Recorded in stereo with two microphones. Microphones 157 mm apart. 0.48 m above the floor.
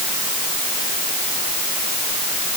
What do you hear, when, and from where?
Only background noise.